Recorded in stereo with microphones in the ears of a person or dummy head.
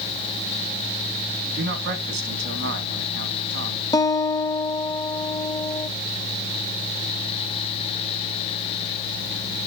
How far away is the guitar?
About 0.5 m.